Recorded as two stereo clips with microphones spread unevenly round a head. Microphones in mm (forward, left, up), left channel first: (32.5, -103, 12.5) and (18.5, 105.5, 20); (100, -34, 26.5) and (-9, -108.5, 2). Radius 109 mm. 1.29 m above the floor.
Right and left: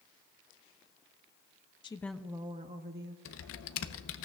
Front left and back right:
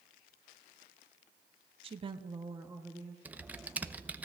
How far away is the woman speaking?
About 0.5 m.